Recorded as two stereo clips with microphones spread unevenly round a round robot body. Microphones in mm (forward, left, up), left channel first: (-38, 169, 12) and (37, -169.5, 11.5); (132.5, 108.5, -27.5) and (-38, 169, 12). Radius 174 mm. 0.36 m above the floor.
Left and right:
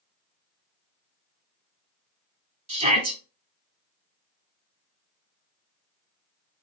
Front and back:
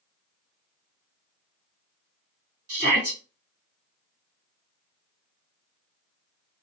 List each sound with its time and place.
2.7 s a shout: 135° right, 1.6 m